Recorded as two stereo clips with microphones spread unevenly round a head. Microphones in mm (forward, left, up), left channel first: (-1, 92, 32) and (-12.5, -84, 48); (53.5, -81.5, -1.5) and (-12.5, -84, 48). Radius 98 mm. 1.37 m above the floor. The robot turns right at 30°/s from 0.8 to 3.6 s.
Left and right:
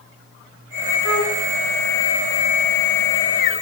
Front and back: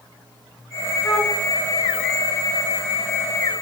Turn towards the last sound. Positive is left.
turn(degrees=165)